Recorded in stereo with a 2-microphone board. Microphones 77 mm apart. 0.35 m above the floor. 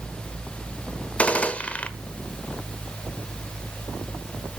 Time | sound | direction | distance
1.2 | a gunshot | 20° left (ahead or behind) | 1.3 m